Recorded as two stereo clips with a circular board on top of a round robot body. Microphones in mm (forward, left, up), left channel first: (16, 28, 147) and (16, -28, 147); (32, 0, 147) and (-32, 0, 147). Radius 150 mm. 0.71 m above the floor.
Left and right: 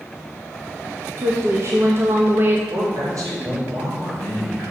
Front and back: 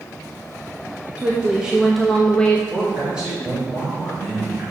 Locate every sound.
1.2 s a woman speaking: 115° right, 1.4 m; by 2.6 s 60° right, 1.1 m
2.7 s a man speaking: 105° right, 3.5 m